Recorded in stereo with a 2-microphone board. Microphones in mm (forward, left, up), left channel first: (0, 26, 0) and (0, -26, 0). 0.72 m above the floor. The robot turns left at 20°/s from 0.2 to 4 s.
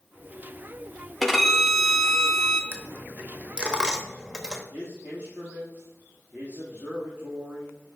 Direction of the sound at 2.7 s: 40° right (ahead or behind).